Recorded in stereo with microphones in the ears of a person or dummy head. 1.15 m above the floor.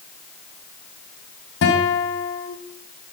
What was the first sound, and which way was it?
A guitar, 60° left (ahead or behind).